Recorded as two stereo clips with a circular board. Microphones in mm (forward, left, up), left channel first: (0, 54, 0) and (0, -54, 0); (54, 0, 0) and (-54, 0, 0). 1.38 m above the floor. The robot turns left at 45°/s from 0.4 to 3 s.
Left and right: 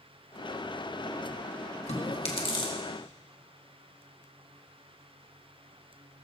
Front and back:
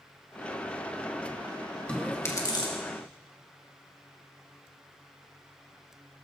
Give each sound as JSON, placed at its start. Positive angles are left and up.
{"t": 1.9, "sound": "chewing", "azimuth_deg": 80, "distance_m": 2.0}